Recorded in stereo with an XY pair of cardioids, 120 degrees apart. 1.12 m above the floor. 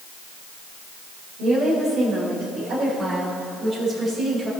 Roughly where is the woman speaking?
Ahead right.